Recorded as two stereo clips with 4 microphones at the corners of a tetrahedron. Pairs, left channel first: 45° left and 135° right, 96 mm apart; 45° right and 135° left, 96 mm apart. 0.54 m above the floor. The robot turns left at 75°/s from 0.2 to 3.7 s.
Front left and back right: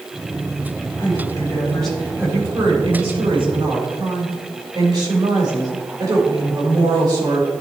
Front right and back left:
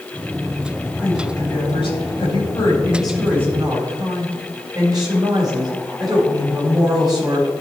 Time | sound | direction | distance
1.0 | a woman speaking | 25° left | 3.5 m